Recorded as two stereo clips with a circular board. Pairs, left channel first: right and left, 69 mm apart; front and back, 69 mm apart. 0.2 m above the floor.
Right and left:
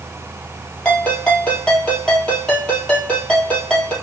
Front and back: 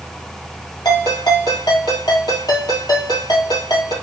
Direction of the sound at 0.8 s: 15° right.